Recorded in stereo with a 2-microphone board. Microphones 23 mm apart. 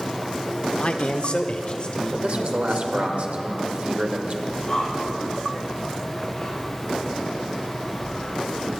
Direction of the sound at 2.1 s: 55° right (ahead or behind).